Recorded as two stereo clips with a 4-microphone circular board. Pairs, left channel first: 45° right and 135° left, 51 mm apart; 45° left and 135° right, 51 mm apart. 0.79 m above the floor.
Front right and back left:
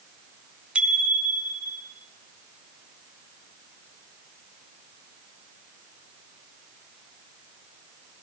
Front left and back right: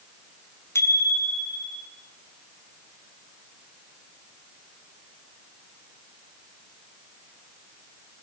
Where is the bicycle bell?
65° left, 5.5 m; by 1.9 s 70° left, 6 m.